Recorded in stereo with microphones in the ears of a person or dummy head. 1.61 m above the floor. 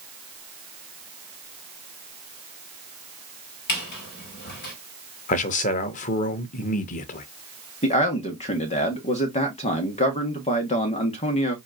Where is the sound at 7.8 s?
30° left (ahead or behind), 1.6 m.